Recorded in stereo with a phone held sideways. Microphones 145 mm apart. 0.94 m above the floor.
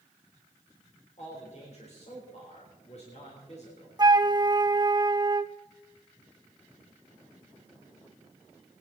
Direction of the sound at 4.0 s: 30° right (ahead or behind).